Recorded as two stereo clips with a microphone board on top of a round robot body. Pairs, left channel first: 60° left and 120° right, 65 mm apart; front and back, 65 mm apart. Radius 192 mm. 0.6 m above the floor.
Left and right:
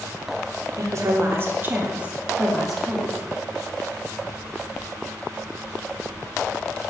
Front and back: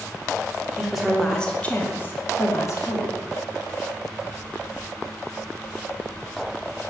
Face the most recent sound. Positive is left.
turn(degrees=-30)